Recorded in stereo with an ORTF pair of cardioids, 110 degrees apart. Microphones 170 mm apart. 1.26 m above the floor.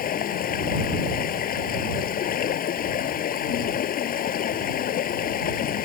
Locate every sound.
0.0 s running water: 60° left